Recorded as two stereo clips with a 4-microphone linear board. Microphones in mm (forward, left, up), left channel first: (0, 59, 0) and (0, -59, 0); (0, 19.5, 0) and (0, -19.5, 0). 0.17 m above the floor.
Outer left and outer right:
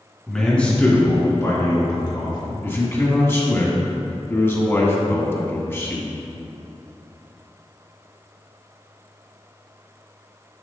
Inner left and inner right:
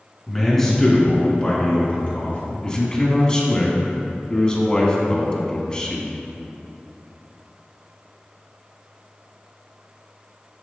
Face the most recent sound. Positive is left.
turn(degrees=25)  # may be behind; listen again after turning